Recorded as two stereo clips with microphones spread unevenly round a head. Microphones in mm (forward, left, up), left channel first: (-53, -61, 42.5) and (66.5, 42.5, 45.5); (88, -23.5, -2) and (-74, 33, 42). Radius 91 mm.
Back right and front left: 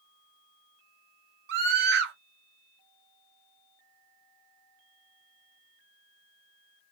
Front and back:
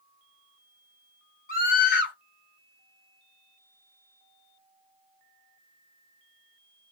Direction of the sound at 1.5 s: 20° left.